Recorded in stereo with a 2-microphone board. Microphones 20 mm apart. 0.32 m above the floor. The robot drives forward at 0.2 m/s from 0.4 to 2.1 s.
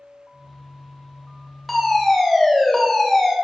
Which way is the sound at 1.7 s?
15° left (ahead or behind).